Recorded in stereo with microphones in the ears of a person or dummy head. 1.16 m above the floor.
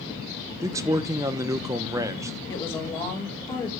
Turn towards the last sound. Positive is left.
turn(degrees=5)  # may be behind; listen again after turning